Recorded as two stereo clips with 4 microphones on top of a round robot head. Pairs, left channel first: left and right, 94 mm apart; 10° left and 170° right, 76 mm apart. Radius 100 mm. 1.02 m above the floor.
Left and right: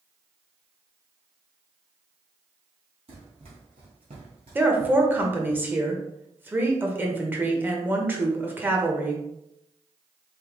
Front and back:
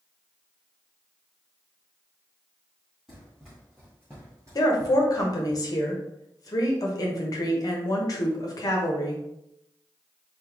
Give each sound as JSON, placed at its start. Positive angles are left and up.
{"t": 3.1, "sound": "running footsteps", "azimuth_deg": -85, "distance_m": 1.9}
{"t": 4.5, "sound": "a woman speaking", "azimuth_deg": -25, "distance_m": 1.2}